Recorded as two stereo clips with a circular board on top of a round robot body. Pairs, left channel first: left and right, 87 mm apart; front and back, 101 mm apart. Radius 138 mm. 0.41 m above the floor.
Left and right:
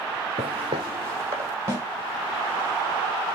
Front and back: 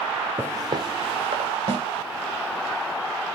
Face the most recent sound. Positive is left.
turn(degrees=-150)